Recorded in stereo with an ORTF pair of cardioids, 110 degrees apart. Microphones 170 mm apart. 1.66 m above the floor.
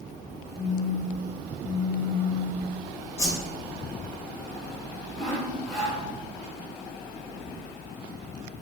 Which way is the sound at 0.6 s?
40° left.